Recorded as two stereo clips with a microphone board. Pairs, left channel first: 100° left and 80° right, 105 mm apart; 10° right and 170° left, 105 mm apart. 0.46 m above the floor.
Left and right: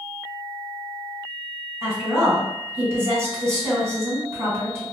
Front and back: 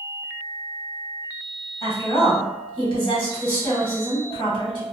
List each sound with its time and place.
1.8 s a woman speaking: 25° right, 1.3 m